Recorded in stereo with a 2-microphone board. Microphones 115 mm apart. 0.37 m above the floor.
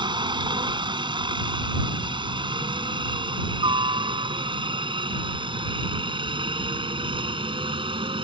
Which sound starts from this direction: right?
A helicopter, at 0.0 s.